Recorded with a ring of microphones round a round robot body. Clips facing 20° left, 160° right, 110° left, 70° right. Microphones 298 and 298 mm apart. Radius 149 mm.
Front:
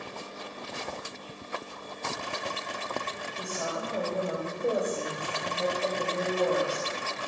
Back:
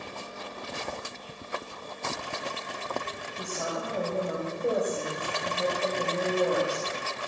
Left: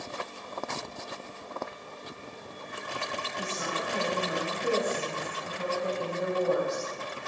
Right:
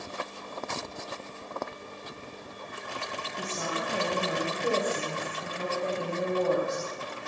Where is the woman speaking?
70° right, 3.5 m.